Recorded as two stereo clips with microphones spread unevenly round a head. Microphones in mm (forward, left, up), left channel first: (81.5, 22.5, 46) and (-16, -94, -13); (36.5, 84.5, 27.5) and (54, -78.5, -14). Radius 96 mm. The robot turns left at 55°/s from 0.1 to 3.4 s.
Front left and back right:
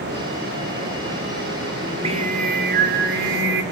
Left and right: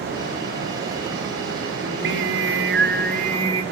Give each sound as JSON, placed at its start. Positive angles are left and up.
{"t": 1.8, "sound": "singing", "azimuth_deg": -65, "distance_m": 2.5}